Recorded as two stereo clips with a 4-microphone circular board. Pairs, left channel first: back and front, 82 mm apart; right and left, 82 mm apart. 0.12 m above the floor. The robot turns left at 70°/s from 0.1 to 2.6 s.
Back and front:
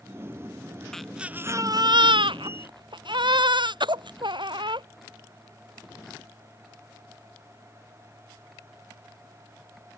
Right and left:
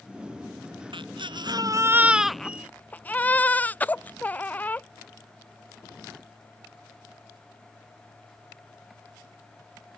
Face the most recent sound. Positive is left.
turn(degrees=-20)